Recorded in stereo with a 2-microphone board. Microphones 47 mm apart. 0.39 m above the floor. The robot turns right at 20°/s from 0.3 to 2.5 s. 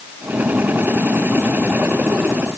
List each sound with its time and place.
Only background noise.